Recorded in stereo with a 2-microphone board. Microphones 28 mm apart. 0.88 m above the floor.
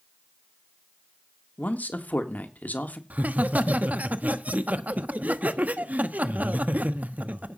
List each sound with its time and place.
1.6 s a man speaking: 80° left, 1.6 m
3.1 s laughter: 70° right (ahead or behind), 1.1 m